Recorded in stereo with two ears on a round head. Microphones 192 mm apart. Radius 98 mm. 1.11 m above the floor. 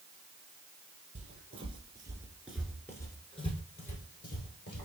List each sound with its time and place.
1.1 s footsteps: 35° right (ahead or behind), 1.3 m; by 4.8 s 50° left (ahead or behind), 1.6 m